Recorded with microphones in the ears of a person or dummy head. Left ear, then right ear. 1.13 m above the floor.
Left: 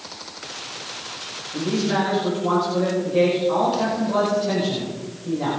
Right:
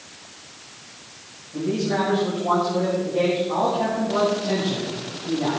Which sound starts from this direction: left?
A man speaking, at 1.5 s.